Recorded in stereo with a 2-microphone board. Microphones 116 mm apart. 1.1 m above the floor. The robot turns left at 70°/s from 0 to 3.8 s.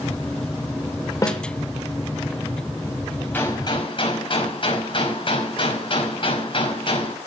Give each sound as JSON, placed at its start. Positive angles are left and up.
{"t": 1.2, "sound": "a snare drum", "side_deg": 30, "distance_m": 3.0}
{"t": 3.3, "sound": "a gunshot", "azimuth_deg": 165, "distance_m": 5.0}